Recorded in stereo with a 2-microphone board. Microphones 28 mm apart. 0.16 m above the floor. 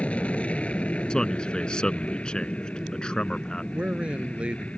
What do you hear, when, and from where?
0.0 s an aircraft: 45° left (ahead or behind)
1.1 s a man speaking: 30° left (ahead or behind)
3.7 s a man speaking: 50° right (ahead or behind)